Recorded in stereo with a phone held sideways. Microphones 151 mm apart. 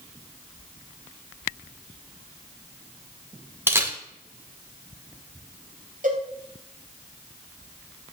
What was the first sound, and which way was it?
A camera shutter, 15° right (ahead or behind).